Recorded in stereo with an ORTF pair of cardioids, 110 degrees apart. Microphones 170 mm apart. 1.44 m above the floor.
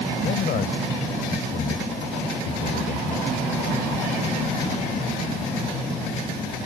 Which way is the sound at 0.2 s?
60° left.